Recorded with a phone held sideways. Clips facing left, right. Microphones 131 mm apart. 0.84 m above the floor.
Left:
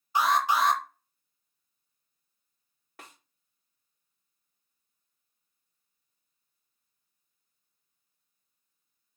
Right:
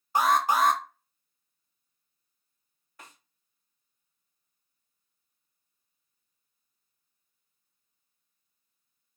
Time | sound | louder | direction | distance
0.1 | an alarm | right 2 dB | 45° right (ahead or behind) | 0.5 m
3.0 | a snare drum | left 1 dB | 75° left (ahead or behind) | 1.0 m